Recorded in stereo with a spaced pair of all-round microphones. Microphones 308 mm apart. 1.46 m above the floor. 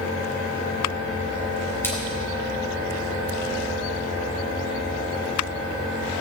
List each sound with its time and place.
1.8 s a splash: 5° left (ahead or behind), 4.5 m